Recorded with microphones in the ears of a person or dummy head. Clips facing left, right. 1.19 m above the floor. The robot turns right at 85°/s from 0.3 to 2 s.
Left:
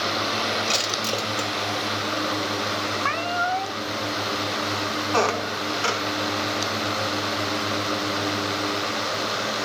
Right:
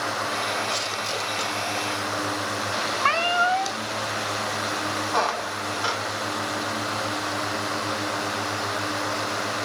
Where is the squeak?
40° left (ahead or behind), 0.8 m.